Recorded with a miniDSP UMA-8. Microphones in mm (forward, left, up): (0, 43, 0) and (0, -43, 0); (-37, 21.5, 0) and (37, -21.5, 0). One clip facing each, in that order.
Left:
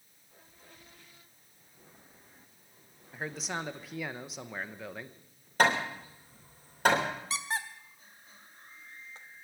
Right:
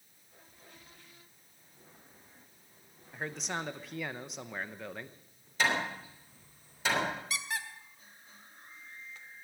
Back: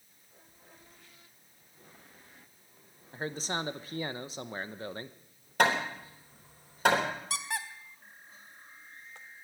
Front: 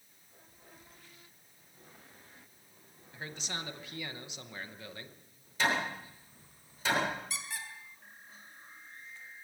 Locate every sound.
3.1 s a man speaking: 175° left, 0.8 m
5.6 s hammering: 125° left, 4 m
7.3 s a squeak: 145° left, 1.2 m